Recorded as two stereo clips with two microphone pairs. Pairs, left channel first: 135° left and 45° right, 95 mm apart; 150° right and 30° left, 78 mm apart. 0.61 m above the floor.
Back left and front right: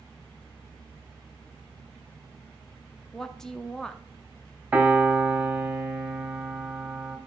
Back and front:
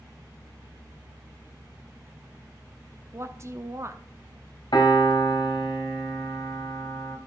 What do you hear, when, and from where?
3.1 s a woman speaking: 50° left, 0.9 m
4.7 s a piano: 120° right, 1.6 m